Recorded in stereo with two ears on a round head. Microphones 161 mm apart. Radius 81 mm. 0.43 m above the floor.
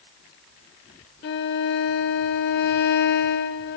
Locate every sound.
1.2 s a violin: 60° left (ahead or behind), 0.6 m